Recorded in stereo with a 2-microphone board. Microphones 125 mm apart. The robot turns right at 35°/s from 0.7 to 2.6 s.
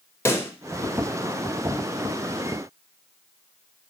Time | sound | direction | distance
0.2 | a pop | 20° left (ahead or behind) | 0.6 m